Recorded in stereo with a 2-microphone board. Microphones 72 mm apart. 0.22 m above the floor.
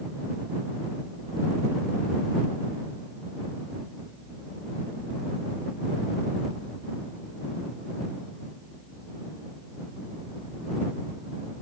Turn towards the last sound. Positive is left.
No sound to turn to.